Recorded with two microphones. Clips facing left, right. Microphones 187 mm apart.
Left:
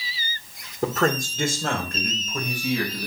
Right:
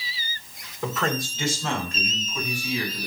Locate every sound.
0.8 s a man speaking: 40° left (ahead or behind), 2 m; by 3.1 s 70° left (ahead or behind), 4.5 m